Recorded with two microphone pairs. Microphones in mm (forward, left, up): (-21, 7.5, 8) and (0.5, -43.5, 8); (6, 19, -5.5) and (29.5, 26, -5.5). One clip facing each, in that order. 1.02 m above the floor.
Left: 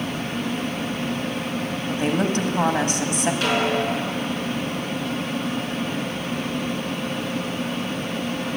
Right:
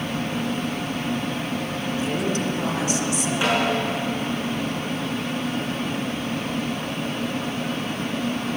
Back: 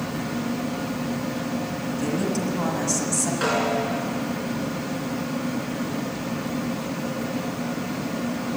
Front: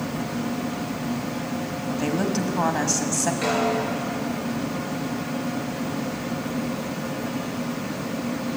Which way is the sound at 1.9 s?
80° left.